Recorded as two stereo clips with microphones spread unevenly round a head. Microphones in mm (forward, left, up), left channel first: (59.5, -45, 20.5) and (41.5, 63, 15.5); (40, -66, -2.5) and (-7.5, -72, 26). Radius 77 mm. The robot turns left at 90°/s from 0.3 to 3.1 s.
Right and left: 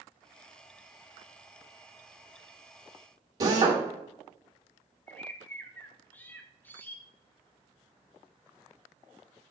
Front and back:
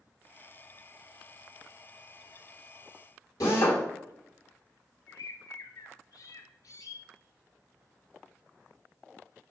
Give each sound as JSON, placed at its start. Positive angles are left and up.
{"t": 3.4, "sound": "a drill", "azimuth_deg": 55, "distance_m": 1.6}
{"t": 5.1, "sound": "a bird", "azimuth_deg": -10, "distance_m": 0.7}